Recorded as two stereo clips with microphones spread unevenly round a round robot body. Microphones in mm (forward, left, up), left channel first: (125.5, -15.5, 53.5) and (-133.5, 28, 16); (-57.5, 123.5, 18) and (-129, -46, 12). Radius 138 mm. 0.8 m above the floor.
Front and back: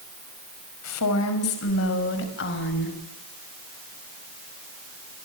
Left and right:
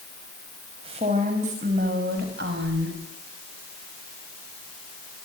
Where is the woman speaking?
45° right, 5.5 m; by 3.0 s 65° right, 6 m.